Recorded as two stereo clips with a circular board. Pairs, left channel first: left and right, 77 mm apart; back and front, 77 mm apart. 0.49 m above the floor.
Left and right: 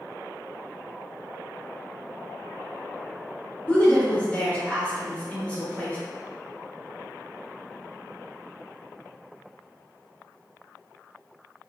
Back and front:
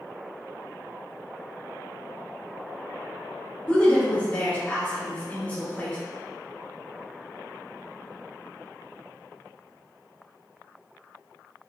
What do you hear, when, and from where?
3.7 s a woman speaking: 135° left, 0.9 m